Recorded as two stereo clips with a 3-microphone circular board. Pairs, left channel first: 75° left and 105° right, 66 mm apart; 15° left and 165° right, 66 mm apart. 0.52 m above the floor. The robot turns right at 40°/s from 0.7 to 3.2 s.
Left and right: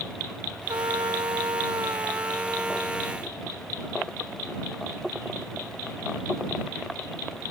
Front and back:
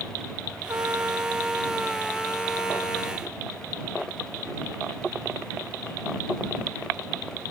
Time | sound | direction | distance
0.7 | a trumpet | 120° right | ?